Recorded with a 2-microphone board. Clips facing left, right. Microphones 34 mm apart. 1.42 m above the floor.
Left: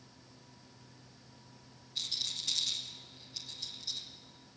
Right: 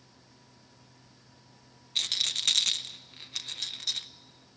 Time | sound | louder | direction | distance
1.9 | a rattle | right 8 dB | 80° right | 0.8 m